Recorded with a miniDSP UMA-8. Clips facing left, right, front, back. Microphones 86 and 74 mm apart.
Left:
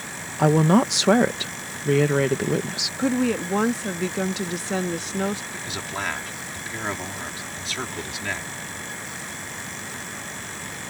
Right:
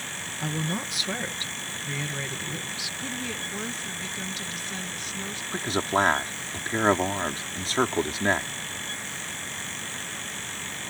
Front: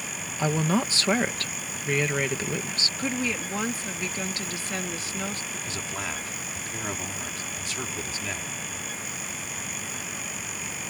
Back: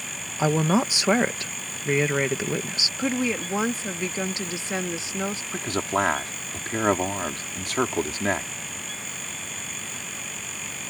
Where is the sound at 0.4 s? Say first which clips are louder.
Left 14 dB, back 3 dB; 105° left.